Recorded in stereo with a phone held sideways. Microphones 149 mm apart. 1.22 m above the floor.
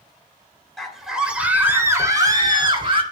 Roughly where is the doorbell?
I don't hear a doorbell.